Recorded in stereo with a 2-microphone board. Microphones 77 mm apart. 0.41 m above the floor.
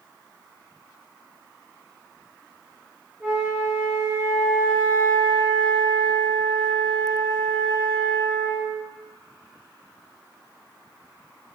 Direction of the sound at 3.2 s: 20° right (ahead or behind).